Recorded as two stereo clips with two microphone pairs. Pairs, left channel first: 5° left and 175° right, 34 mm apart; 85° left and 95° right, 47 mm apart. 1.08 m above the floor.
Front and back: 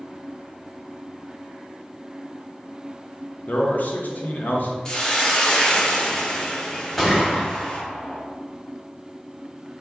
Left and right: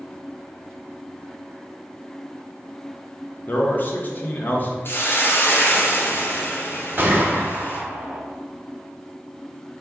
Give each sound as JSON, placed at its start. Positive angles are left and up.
{"t": 3.5, "sound": "a man speaking", "azimuth_deg": 35, "distance_m": 0.7}
{"t": 4.8, "sound": "a hiss", "azimuth_deg": 70, "distance_m": 0.6}
{"t": 7.0, "sound": "a gunshot", "azimuth_deg": -75, "distance_m": 0.8}